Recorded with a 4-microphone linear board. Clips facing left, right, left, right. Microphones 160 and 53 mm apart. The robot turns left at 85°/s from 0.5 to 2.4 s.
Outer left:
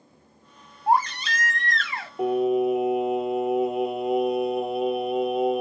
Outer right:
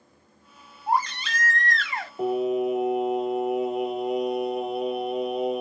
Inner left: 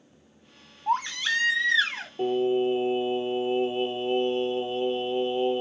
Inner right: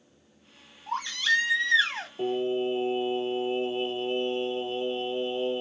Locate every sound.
0.9 s a baby crying: 70° left, 1.8 m; by 2.1 s 35° right, 1.8 m
2.2 s singing: 10° left (ahead or behind), 0.9 m; by 5.6 s centre (ahead or behind), 0.9 m